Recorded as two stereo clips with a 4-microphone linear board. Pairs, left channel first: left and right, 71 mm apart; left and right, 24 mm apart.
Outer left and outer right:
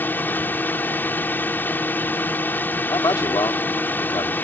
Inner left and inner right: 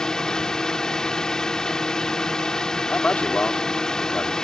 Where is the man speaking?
80° left.